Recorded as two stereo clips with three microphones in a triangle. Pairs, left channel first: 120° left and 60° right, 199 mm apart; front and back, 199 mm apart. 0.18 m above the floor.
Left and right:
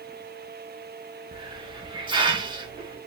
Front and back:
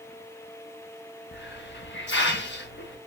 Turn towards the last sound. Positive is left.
turn(degrees=5)